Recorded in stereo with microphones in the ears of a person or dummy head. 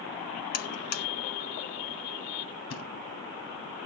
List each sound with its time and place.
0.5 s a buzzer: 50° left (ahead or behind), 1.0 m
2.7 s a thud: 80° left, 3.5 m